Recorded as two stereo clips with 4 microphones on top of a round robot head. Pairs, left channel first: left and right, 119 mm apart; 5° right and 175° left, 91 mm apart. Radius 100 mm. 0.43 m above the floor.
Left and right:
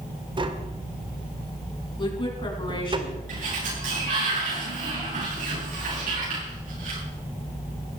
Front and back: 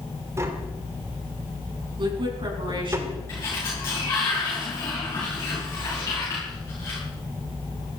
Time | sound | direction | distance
0.4 | tapping | 130° right | 2.0 m
2.0 | a woman speaking | 140° left | 6 m
3.3 | a sliding door | 70° right | 9 m